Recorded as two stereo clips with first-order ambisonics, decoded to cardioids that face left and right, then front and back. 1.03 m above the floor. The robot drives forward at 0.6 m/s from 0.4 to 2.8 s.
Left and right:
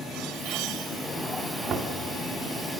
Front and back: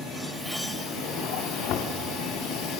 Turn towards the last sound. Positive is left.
turn(degrees=-50)